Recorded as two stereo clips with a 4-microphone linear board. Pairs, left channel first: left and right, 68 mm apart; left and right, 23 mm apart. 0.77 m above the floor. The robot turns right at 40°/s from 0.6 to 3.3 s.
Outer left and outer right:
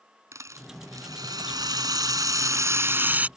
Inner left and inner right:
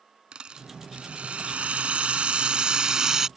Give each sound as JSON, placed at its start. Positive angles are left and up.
{"t": 0.3, "sound": "a rattle", "azimuth_deg": -130}